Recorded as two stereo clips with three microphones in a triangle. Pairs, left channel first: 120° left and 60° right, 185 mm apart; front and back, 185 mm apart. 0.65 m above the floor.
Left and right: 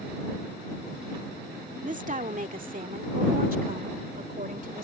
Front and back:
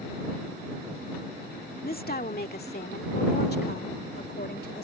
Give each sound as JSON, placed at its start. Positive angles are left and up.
{"t": 1.8, "sound": "a woman speaking", "azimuth_deg": -25}